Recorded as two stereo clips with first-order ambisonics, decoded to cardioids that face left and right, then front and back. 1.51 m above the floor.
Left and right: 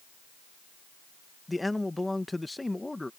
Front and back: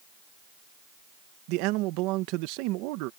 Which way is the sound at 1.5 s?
175° left.